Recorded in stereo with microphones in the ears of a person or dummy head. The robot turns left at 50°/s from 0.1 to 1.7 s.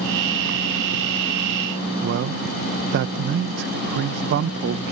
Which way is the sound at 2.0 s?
60° right (ahead or behind).